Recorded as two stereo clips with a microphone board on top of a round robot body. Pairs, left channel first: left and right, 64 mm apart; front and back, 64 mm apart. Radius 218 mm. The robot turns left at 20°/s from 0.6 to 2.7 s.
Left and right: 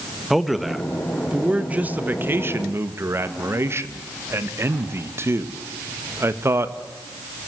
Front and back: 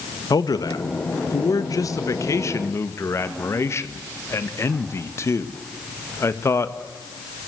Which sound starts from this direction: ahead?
A man speaking, at 0.3 s.